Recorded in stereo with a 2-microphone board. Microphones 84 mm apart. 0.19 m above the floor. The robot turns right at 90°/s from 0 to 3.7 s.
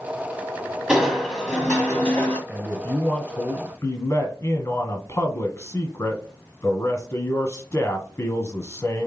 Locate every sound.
0.9 s crushing: 10° right (ahead or behind), 1.5 m; by 2.4 s 20° left (ahead or behind), 1.5 m
2.5 s a man speaking: 25° right, 1.2 m; by 9.1 s 85° left, 1.2 m